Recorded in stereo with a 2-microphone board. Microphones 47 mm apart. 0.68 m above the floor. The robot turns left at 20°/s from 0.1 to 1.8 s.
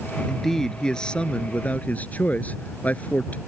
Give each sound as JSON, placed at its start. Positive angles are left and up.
{"t": 0.3, "sound": "a man speaking", "azimuth_deg": 180}